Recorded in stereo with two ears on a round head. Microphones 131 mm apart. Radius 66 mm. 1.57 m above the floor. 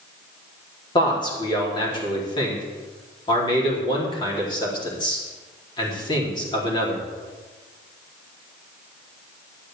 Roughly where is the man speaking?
Left.